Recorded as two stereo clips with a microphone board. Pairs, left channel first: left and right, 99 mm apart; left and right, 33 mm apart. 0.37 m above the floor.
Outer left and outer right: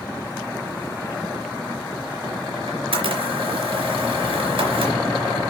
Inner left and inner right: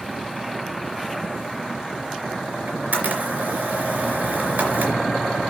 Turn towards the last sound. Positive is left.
turn(degrees=-65)  # may be behind; listen again after turning